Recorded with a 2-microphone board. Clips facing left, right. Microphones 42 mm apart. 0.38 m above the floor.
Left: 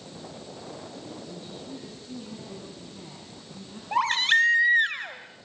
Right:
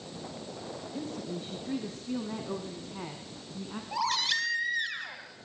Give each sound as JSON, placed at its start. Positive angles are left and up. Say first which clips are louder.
{"t": 0.9, "sound": "a woman speaking", "louder": "right 3 dB", "side_deg": -75, "distance_m": 4.5}
{"t": 3.9, "sound": "a baby crying", "louder": "left 8 dB", "side_deg": 50, "distance_m": 2.5}